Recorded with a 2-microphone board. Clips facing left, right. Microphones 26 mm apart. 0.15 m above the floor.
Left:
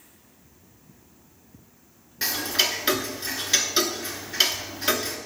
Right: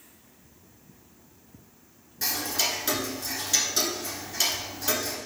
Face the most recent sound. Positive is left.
turn(degrees=45)  # may be behind; listen again after turning